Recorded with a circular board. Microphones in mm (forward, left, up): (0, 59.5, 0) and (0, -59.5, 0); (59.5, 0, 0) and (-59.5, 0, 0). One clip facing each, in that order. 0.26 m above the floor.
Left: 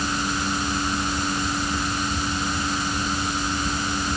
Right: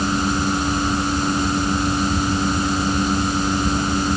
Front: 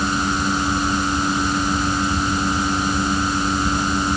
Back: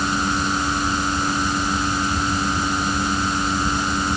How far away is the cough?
No cough in this recording.